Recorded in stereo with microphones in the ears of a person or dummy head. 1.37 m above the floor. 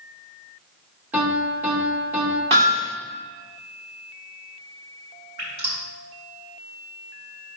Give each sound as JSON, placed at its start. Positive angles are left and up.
{"t": 1.1, "sound": "a piano", "side_deg": -10, "distance_m": 1.7}
{"t": 2.5, "sound": "hammering", "side_deg": -35, "distance_m": 2.0}
{"t": 5.4, "sound": "dripping", "side_deg": -35, "distance_m": 3.0}